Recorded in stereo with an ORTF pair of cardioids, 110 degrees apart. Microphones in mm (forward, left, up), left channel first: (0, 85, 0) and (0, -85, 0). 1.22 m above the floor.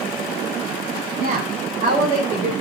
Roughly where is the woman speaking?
Ahead right.